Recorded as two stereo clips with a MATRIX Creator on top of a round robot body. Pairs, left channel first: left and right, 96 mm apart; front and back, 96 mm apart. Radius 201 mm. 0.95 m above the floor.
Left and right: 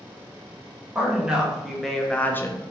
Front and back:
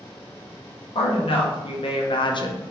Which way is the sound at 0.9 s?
10° right.